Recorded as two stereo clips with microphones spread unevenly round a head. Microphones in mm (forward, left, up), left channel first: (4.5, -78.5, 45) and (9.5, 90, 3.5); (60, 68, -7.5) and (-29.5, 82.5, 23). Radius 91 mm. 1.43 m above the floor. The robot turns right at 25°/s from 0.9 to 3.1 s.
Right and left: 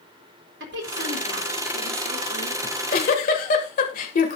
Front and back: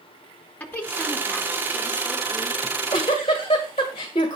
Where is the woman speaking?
65° left, 2.5 m; by 2.5 s 110° left, 2.5 m.